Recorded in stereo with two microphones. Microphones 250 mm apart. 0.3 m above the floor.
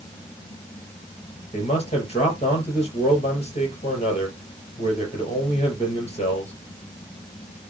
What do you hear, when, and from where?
1.5 s a man speaking: 25° left (ahead or behind), 5 m